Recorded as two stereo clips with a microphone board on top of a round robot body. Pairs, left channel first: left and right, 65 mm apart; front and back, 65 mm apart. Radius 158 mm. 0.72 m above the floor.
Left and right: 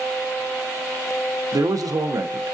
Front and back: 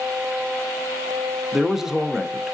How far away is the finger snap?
No finger snap in this recording.